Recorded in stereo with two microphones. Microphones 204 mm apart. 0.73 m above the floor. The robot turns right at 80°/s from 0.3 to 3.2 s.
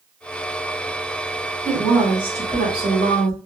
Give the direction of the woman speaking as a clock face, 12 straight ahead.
6 o'clock.